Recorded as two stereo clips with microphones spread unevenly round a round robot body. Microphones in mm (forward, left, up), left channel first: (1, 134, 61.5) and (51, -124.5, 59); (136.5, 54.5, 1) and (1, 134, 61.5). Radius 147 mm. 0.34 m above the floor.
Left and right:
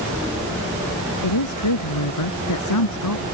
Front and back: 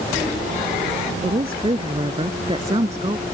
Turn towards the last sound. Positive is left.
turn(degrees=90)